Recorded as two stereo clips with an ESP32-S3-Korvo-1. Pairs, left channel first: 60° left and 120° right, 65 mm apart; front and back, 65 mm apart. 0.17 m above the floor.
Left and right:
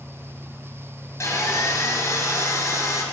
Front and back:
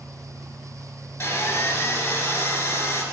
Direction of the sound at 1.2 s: 50° left.